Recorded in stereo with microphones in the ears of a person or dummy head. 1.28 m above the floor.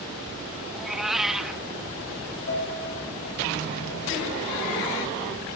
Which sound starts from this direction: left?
A piano, at 2.5 s.